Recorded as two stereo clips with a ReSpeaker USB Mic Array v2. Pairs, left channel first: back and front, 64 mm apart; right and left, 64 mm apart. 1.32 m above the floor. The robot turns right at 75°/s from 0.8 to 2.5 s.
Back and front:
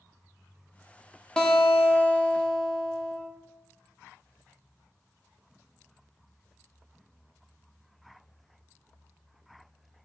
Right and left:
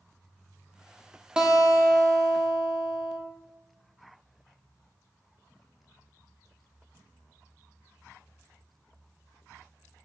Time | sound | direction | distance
1.4 | a guitar | 135° left | 0.5 m